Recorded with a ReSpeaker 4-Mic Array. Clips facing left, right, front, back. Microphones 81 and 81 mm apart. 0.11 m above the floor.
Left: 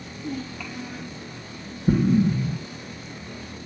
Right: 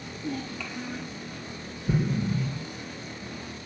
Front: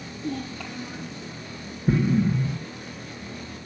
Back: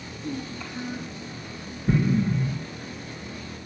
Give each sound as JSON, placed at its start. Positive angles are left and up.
{"t": 0.2, "sound": "a child speaking", "azimuth_deg": 5, "distance_m": 2.0}
{"t": 1.9, "sound": "an explosion", "azimuth_deg": 60, "distance_m": 3.0}